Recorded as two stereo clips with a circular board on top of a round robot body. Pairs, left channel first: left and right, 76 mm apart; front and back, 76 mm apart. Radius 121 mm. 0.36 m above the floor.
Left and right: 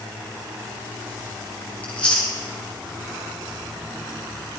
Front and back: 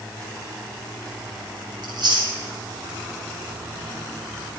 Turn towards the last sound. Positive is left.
turn(degrees=165)